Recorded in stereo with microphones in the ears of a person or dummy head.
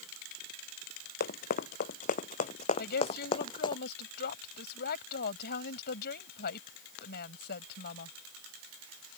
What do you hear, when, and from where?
1.2 s running footsteps: 65° left (ahead or behind); by 3.8 s 35° left (ahead or behind)
2.8 s a woman speaking: 70° left (ahead or behind)